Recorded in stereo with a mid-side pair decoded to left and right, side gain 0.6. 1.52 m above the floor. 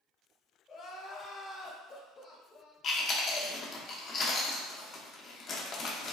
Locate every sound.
0.7 s crying: 40° left, 1.0 m
2.8 s chewing: 45° left, 0.7 m